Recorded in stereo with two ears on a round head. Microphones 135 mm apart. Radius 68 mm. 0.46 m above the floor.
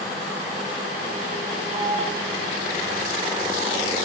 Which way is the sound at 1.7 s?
30° right (ahead or behind).